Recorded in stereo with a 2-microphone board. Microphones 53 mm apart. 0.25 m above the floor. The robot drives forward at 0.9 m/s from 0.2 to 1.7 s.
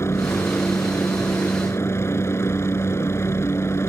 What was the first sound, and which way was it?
A helicopter, 55° left (ahead or behind).